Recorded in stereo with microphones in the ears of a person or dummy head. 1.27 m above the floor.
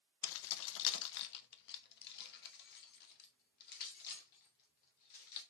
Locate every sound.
0.2 s keys jangling: 60° left (ahead or behind), 0.5 m; by 5.4 s 50° left (ahead or behind), 3 m